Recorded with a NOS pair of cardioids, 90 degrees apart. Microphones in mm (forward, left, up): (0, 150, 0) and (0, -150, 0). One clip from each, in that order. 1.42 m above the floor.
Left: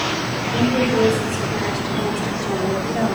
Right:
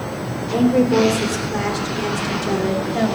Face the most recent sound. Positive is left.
turn(degrees=-15)